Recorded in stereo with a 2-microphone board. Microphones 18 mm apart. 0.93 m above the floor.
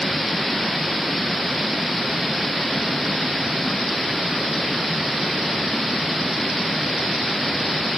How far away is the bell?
I don't hear a bell.